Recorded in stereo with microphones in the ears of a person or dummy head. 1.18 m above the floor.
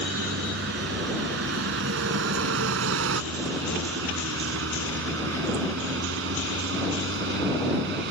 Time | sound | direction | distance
0.0 | a vehicle | 65° right (ahead or behind) | ?